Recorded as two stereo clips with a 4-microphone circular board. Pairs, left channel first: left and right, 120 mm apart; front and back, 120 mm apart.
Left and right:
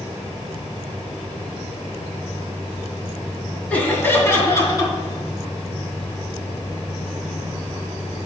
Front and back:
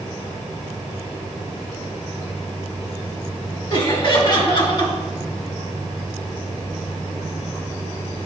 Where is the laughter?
20° left, 2.0 m; by 4.9 s 35° left, 2.5 m.